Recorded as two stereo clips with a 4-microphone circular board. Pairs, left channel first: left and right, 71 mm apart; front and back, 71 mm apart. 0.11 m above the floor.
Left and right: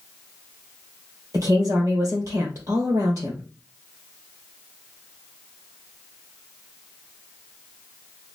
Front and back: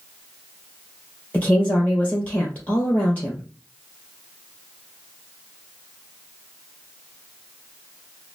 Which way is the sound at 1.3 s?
65° right.